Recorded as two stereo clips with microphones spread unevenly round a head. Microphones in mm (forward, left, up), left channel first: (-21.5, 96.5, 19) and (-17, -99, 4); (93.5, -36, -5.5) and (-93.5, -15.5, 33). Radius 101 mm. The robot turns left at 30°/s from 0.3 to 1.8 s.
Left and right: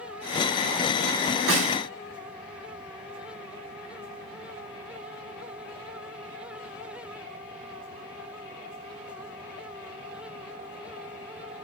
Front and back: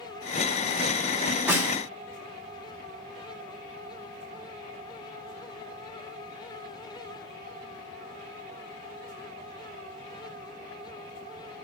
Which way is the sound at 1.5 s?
105° right.